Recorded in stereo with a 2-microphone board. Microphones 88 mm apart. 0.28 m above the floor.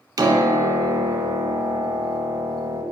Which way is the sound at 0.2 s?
45° right (ahead or behind).